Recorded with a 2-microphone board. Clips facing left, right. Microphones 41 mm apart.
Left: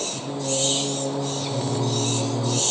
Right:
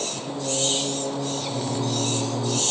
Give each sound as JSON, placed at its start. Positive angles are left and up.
{"t": 0.1, "sound": "singing", "side_deg": 5, "distance_m": 2.5}